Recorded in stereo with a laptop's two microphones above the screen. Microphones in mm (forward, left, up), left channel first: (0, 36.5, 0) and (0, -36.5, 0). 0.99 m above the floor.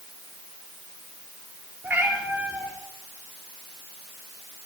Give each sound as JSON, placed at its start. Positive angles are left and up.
{"t": 1.8, "sound": "a cat meowing", "side_deg": -20, "distance_m": 3.5}